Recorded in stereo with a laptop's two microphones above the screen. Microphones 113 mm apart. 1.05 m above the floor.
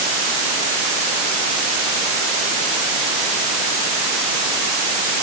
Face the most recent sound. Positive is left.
No sound to turn to.